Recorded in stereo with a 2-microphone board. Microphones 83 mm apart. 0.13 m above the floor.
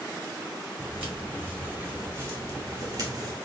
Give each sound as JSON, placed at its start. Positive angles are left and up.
{"t": 0.8, "sound": "footsteps", "side_deg": -15, "distance_m": 3.5}